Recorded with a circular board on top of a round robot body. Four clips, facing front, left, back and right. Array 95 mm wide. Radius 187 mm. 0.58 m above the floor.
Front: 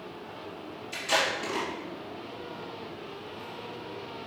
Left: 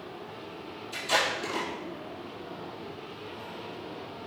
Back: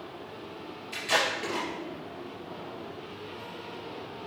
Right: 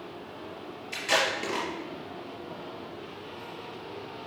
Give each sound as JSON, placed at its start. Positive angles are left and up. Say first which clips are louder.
{"t": 0.9, "sound": "tape being pulled", "louder": "right 1 dB, even", "azimuth_deg": -95, "distance_m": 3.0}